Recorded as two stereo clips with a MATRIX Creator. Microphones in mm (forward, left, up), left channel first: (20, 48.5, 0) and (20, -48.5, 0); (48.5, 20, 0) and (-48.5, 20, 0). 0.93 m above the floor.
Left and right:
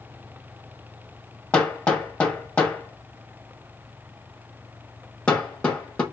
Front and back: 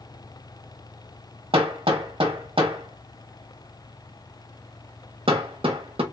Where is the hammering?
170° left, 1.0 m.